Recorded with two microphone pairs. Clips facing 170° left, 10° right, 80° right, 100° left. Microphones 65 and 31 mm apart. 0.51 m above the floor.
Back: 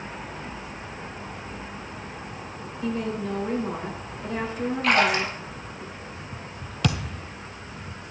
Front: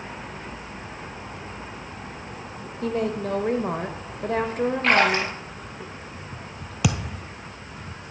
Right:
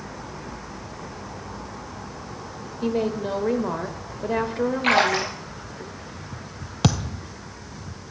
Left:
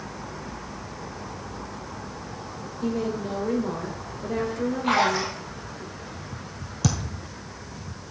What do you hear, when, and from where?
2.8 s a woman speaking: 30° right, 1.4 m
4.8 s a splash: 65° right, 2 m
6.8 s a thud: 85° right, 0.7 m